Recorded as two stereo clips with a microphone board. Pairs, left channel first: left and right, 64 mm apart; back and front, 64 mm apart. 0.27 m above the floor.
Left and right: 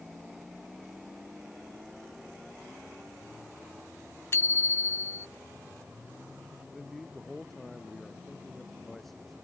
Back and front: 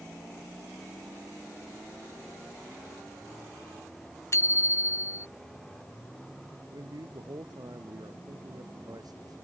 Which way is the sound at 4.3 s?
135° left.